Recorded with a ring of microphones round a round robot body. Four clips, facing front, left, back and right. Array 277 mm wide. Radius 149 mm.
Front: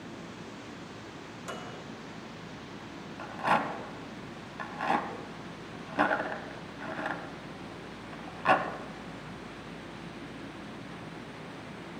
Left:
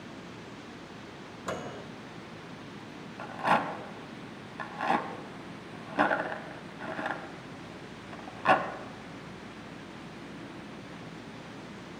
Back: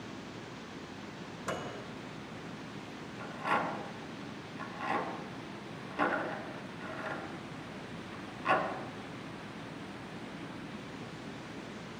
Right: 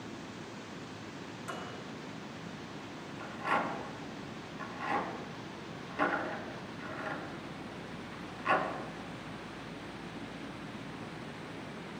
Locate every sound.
1.5 s a microwave: 110° left, 1.4 m
3.2 s a rattle: 60° left, 1.5 m